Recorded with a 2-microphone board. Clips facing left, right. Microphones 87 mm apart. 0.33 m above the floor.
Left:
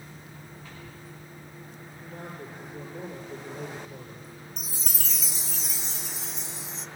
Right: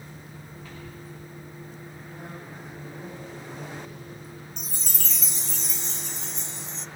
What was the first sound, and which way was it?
A man speaking, 80° left.